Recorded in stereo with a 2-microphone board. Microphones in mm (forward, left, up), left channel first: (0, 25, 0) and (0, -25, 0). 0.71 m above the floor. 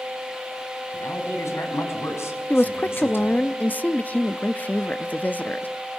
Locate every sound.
0.9 s a man speaking: 75° left (ahead or behind), 5.5 m; by 3.4 s 50° left (ahead or behind), 5 m
2.5 s a woman speaking: 35° left (ahead or behind), 0.7 m